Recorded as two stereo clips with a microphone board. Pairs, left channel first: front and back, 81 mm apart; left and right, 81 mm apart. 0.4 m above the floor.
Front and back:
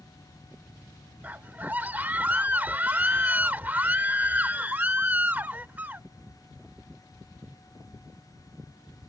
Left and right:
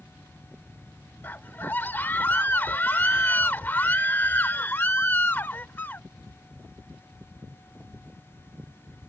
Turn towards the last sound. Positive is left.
turn(degrees=130)